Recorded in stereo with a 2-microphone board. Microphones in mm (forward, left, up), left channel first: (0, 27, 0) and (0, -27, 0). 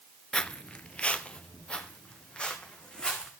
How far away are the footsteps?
About 0.5 m.